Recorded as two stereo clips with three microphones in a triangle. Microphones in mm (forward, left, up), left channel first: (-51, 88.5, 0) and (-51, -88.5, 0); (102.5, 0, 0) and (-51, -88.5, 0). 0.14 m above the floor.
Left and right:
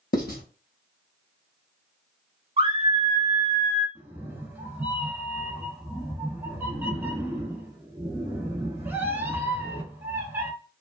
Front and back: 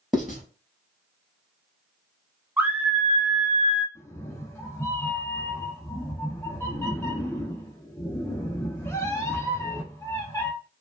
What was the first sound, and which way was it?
Writing, 120° left.